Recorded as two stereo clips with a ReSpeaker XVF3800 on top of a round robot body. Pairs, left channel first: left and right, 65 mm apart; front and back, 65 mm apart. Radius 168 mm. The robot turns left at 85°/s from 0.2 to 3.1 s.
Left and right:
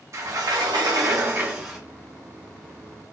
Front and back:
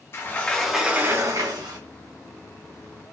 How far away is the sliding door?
About 1.0 m.